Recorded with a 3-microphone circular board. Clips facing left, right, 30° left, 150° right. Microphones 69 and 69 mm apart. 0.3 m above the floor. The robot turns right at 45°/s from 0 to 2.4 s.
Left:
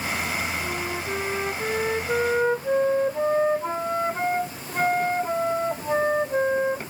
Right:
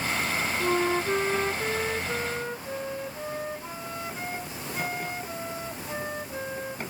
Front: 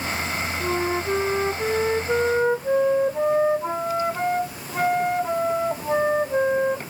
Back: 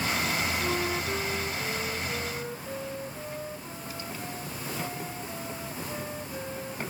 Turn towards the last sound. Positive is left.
turn(degrees=45)